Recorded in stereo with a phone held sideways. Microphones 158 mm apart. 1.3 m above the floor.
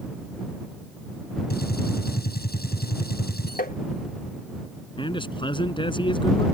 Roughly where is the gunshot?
Left.